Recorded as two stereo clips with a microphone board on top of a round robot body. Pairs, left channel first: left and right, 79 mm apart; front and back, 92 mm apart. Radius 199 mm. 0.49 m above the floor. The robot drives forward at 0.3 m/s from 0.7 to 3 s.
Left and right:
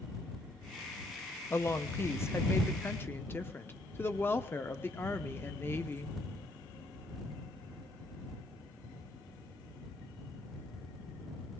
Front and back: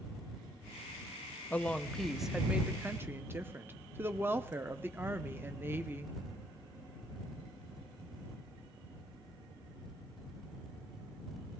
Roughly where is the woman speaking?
Ahead left.